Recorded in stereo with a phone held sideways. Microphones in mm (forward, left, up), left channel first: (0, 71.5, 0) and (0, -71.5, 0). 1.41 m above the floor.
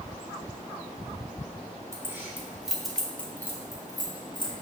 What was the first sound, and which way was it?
Keys jangling, 20° right (ahead or behind).